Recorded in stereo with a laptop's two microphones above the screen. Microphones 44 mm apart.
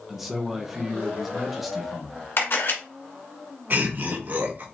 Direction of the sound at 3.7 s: 45° right (ahead or behind).